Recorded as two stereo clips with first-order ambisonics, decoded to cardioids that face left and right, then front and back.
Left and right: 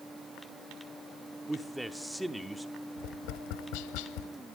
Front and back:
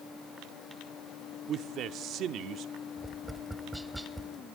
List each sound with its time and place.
1.5 s a man speaking: 175° right, 0.8 m
3.0 s tapping: 90° left, 0.8 m